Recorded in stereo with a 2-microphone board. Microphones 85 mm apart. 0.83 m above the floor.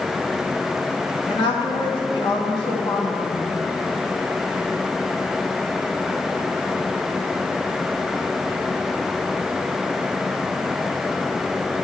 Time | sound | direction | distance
1.3 | a woman speaking | 65° left (ahead or behind) | 1.7 m